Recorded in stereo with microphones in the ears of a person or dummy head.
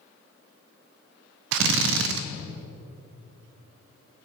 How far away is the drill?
About 0.7 m.